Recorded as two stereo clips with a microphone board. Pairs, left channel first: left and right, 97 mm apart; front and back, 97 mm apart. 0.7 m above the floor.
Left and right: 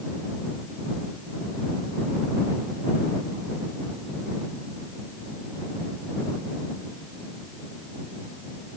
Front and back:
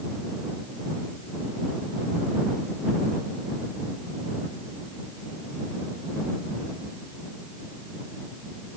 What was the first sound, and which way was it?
Only background noise.